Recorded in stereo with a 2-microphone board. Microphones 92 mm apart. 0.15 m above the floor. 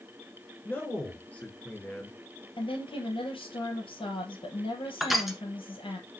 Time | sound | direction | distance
0.7 | a man speaking | 20° left (ahead or behind) | 3 m
2.6 | a woman speaking | 70° left (ahead or behind) | 3 m
5.0 | crushing | centre (ahead or behind) | 1.5 m